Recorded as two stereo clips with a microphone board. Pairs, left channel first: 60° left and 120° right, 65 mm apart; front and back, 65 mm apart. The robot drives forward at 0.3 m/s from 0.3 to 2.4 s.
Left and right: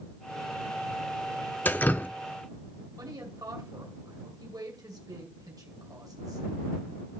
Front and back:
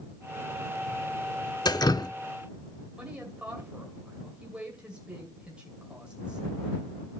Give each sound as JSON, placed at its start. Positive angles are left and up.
{"t": 1.6, "sound": "dripping", "azimuth_deg": 0, "distance_m": 0.6}
{"t": 3.0, "sound": "a woman speaking", "azimuth_deg": -105, "distance_m": 2.0}